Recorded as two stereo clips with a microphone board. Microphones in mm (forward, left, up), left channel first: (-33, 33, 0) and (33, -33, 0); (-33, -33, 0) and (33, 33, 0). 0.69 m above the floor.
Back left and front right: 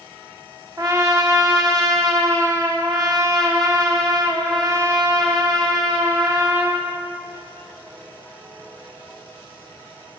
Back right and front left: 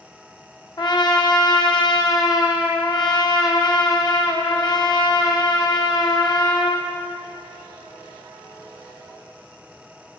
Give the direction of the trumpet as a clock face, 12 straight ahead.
3 o'clock.